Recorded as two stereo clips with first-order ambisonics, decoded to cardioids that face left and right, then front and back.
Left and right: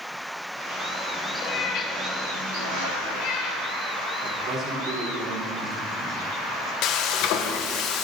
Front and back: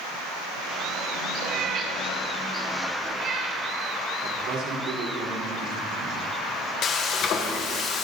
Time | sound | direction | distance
1.4 | a cat meowing | 125° left | 2.5 m
4.2 | a man speaking | 140° right | 4 m
6.8 | frying | 55° left | 1.4 m